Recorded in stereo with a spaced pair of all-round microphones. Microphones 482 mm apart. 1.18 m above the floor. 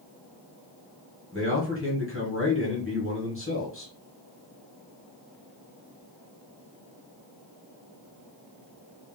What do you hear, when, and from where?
1.3 s a man speaking: 25° left (ahead or behind), 1.1 m